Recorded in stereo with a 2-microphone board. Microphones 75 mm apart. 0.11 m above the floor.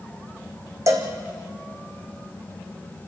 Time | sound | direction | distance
0.9 | a cowbell | 45° right (ahead or behind) | 2.5 m